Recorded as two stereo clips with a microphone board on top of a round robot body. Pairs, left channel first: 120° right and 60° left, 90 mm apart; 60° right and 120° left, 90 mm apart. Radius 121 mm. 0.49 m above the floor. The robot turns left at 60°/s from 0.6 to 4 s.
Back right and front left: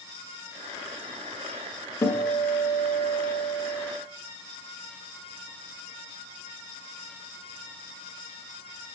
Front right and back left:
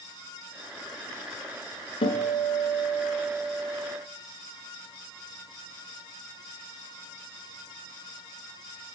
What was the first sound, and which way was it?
A guitar, 60° right.